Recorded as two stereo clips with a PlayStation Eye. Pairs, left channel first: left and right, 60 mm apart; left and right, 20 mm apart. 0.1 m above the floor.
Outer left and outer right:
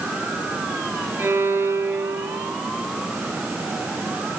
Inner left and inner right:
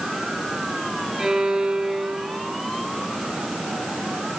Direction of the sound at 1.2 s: 40° right (ahead or behind).